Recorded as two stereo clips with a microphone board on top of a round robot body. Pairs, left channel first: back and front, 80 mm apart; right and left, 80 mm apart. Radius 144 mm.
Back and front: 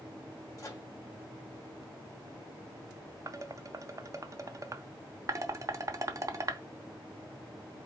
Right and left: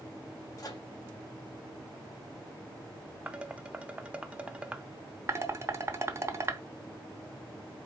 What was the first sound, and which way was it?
A microwave, 130° right.